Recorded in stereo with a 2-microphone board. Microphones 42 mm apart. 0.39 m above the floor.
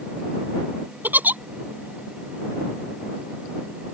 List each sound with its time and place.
1.0 s a giggle: 50° right (ahead or behind)